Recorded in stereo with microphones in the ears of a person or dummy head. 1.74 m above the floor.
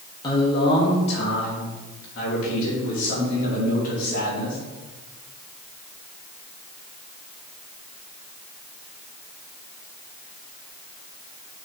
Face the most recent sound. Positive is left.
turn(degrees=45)  # may be behind; listen again after turning